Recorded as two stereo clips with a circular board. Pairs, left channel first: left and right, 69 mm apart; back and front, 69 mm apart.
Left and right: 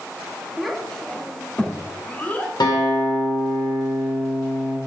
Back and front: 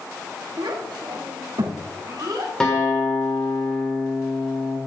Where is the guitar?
100° left, 3 m.